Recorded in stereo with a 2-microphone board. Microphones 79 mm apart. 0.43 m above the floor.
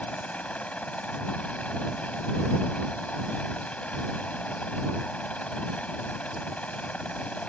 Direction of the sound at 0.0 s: 15° left (ahead or behind).